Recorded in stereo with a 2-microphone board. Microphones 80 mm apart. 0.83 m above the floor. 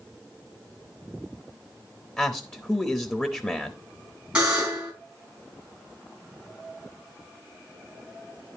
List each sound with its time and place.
2.2 s a man speaking: 20° left (ahead or behind), 0.8 m
4.3 s a buzzer: 15° right (ahead or behind), 3 m